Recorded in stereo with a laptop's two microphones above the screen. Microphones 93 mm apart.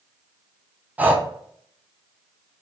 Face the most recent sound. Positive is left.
turn(degrees=-20)  # may be behind; listen again after turning